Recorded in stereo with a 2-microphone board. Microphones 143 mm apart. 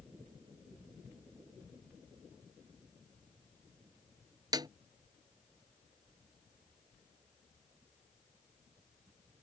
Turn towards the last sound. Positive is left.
turn(degrees=-30)  # may be behind; listen again after turning